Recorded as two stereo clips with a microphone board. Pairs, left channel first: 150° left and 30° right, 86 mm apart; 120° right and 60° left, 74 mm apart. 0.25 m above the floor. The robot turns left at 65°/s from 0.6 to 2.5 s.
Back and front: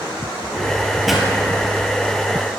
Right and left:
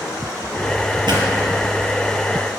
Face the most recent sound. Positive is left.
turn(degrees=-35)